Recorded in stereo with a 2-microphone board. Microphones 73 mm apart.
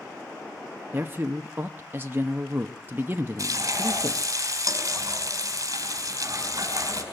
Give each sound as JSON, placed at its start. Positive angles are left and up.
{"t": 0.9, "sound": "a man speaking", "side_deg": -30, "distance_m": 0.8}
{"t": 3.4, "sound": "frying", "side_deg": -50, "distance_m": 4.5}